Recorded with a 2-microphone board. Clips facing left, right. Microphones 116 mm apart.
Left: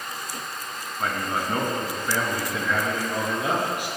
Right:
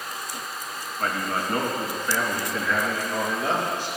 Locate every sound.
1.0 s a man speaking: 5° left (ahead or behind), 3 m; by 3.9 s 15° left (ahead or behind), 5.5 m